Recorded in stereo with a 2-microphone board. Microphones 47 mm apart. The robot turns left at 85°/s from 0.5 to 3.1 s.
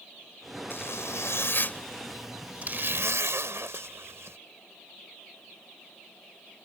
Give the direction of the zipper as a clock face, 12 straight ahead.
8 o'clock.